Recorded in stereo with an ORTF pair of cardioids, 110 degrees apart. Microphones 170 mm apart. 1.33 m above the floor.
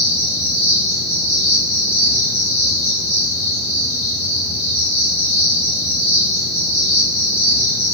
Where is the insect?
40° left, 1.3 m.